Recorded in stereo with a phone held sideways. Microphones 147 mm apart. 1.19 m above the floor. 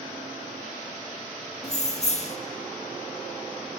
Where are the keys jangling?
50° left (ahead or behind), 0.5 m.